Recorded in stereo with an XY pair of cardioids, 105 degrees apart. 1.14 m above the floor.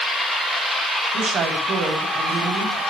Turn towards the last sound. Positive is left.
turn(degrees=-65)